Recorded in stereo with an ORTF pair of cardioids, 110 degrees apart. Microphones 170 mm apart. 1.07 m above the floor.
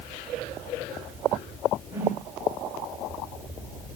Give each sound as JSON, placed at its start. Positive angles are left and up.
{"t": 1.9, "sound": "a whoosh", "azimuth_deg": -15, "distance_m": 6.5}